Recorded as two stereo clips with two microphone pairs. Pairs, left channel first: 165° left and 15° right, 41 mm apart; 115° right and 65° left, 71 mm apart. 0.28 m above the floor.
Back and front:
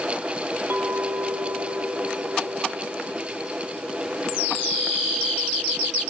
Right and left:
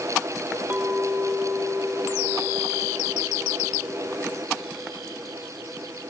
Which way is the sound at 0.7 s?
5° left.